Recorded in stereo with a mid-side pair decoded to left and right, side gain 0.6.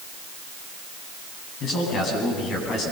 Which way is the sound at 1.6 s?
50° left.